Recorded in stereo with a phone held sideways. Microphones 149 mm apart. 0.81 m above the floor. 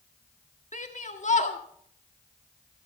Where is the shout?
55° left (ahead or behind), 1.8 m.